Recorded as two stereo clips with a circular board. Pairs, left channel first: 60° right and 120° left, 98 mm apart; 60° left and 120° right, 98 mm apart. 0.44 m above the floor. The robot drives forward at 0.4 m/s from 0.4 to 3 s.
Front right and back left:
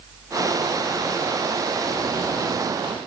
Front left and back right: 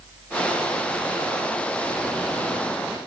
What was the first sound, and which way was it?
Only background noise.